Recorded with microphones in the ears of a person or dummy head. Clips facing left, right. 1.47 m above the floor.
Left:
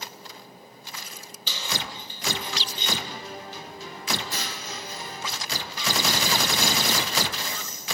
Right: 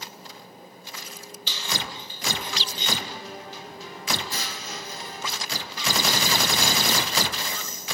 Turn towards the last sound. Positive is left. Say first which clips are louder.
# even
turn(degrees=45)  # may be behind; listen again after turning